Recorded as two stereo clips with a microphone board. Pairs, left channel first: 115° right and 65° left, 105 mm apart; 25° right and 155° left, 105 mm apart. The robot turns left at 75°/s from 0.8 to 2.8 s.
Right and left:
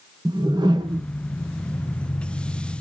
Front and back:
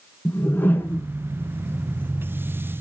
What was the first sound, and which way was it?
A whoosh, 40° left.